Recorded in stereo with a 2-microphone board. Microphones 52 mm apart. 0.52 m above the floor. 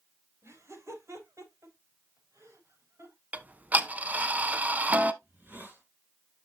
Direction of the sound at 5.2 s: 35° right (ahead or behind).